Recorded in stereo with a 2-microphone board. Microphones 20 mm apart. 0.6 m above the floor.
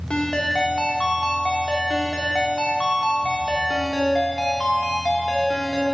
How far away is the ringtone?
About 0.8 m.